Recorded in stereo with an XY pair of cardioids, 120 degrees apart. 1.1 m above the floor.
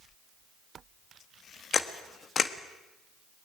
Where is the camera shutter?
35° left, 1.5 m.